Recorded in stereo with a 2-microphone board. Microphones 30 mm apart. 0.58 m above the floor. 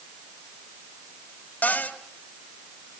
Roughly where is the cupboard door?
Left.